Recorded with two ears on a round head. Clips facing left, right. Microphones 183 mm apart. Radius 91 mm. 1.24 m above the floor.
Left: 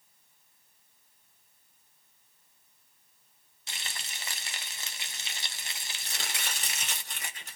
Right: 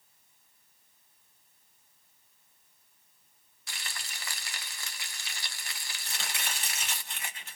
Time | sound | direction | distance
3.7 | frying | 20° left (ahead or behind) | 0.5 m
6.0 | chopping | 35° left (ahead or behind) | 1.3 m